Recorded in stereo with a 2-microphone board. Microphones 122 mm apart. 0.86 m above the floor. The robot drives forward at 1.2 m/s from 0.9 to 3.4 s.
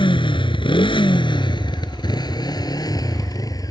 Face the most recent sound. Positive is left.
turn(degrees=30)  # may be behind; listen again after turning